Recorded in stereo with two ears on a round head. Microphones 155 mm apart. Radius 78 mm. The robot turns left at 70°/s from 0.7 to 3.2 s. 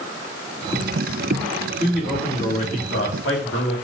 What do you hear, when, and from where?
1.8 s a man speaking: 165° right, 2.5 m; by 3.7 s 100° left, 2.5 m